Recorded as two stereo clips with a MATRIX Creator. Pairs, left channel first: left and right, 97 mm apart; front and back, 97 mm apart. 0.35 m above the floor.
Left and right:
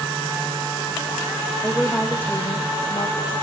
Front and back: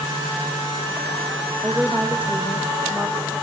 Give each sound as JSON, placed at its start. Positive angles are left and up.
{"t": 1.6, "sound": "a woman speaking", "azimuth_deg": -140, "distance_m": 0.8}